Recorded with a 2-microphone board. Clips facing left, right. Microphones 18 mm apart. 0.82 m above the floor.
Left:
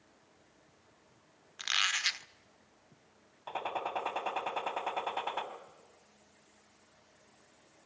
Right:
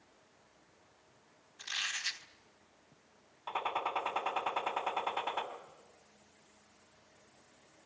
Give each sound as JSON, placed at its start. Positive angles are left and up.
{"t": 1.6, "sound": "a squeak", "side_deg": 65, "distance_m": 0.9}
{"t": 3.5, "sound": "a gunshot", "side_deg": -10, "distance_m": 2.5}